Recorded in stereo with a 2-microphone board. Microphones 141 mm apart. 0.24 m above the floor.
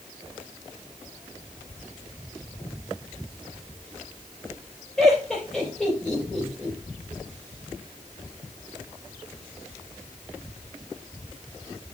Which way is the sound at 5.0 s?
Centre (ahead or behind).